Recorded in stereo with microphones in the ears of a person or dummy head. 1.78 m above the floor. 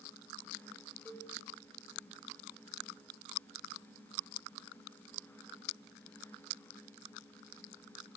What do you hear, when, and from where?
1.1 s a cowbell: 5° left (ahead or behind), 7.5 m